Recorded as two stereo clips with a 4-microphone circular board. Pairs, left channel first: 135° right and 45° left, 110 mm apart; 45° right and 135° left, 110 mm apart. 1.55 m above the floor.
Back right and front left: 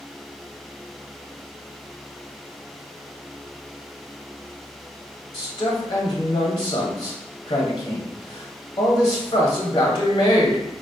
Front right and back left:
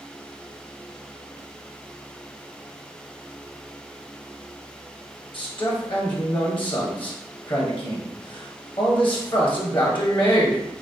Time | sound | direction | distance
5.3 | a man speaking | 85° right | 1.0 m